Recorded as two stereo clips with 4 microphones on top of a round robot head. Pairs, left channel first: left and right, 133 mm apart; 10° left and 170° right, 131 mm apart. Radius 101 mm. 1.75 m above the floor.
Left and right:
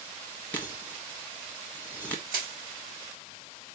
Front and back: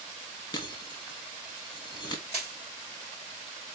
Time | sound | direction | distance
0.5 | breaking glass | 30° left | 1.0 m
2.3 | crushing | 95° right | 3.5 m